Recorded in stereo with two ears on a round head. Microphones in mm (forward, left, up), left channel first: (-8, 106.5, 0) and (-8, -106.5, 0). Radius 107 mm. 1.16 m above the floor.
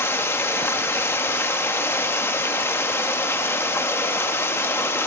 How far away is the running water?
About 0.7 m.